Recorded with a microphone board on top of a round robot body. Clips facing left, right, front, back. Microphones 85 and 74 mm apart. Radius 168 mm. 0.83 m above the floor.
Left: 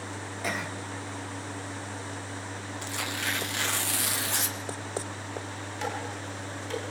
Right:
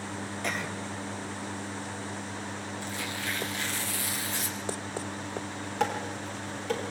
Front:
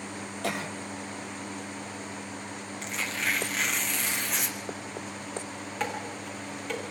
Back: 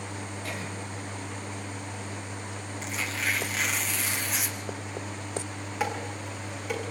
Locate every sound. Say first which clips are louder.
0.4 s a cough: left 1 dB, front 7 dB; 5° left, 2.5 m
2.8 s tearing paper: left 4 dB, even; 90° left, 2 m
5.8 s dishes clattering: right 4 dB, back 2 dB; 100° right, 6.5 m